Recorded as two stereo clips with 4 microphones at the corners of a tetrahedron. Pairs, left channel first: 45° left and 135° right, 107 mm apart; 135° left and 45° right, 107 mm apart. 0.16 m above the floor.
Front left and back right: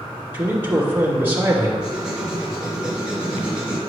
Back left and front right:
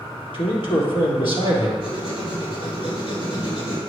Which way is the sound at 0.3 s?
155° left.